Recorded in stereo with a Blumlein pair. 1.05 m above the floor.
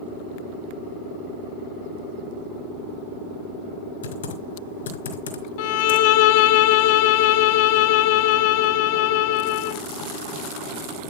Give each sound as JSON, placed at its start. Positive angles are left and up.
{"t": 4.0, "sound": "typing on a keyboard", "azimuth_deg": 65, "distance_m": 3.0}
{"t": 5.6, "sound": "a violin", "azimuth_deg": 50, "distance_m": 0.8}